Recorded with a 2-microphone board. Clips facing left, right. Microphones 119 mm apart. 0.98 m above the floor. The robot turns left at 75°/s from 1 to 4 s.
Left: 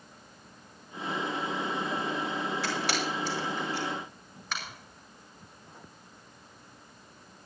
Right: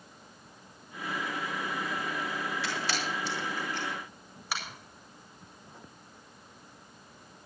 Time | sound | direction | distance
2.6 | a camera shutter | 80° left | 5 m